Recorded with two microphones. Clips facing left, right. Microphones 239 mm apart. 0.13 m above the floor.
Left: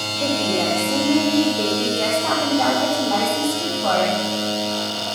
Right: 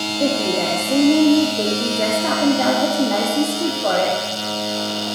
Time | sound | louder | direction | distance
0.2 | a woman speaking | right 1 dB | 20° right (ahead or behind) | 3.5 m